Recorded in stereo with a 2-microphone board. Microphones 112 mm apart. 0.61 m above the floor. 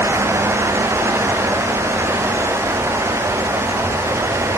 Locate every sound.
Only background noise.